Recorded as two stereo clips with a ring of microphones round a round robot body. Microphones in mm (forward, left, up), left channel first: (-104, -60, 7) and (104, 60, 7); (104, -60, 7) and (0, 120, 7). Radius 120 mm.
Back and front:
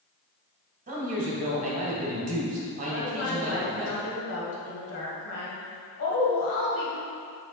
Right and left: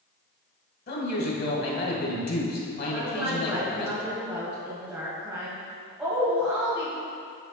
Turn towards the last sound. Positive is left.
turn(degrees=-155)